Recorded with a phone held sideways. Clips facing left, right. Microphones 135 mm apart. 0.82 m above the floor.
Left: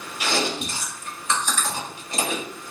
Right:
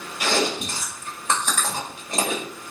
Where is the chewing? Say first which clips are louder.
Right 2 dB; 55° right (ahead or behind), 2 m.